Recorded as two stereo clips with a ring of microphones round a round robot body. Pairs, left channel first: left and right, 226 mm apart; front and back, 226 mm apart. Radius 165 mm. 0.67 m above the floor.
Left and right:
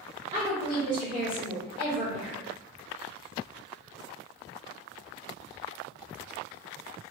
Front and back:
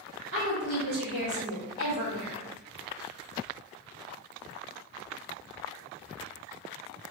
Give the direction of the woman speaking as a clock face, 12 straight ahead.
5 o'clock.